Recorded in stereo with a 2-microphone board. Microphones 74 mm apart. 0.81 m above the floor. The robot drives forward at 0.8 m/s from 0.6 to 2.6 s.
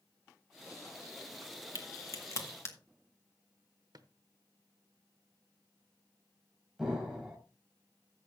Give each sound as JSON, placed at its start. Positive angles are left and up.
{"t": 1.8, "sound": "a crack", "side_deg": 50, "distance_m": 1.5}
{"t": 3.9, "sound": "a drawer", "side_deg": -60, "distance_m": 1.0}
{"t": 6.8, "sound": "an explosion", "side_deg": -10, "distance_m": 3.5}